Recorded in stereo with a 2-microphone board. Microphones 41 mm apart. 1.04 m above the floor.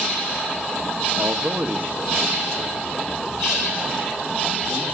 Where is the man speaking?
75° right (ahead or behind), 0.8 m; by 4.8 s 10° right (ahead or behind), 5 m.